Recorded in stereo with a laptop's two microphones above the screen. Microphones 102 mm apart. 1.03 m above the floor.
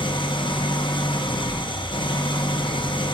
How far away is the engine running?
About 0.8 m.